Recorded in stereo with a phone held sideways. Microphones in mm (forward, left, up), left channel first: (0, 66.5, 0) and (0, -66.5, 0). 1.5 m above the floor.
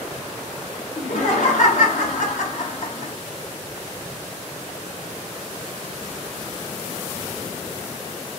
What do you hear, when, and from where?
1.0 s laughter: 70° left (ahead or behind), 0.7 m